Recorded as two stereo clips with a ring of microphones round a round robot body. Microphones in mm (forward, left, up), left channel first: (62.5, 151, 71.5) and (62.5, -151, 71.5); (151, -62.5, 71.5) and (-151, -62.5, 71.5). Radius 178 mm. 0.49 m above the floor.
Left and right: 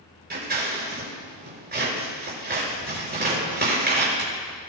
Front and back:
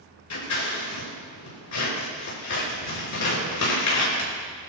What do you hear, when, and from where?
0.3 s scissors: 30° right, 6 m